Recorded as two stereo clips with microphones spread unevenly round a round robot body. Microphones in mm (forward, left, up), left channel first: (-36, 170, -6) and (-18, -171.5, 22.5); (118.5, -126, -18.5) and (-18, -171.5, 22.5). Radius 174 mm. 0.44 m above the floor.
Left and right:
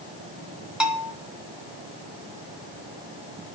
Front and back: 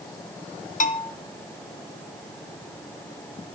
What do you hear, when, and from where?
0.8 s a bell: straight ahead, 1.7 m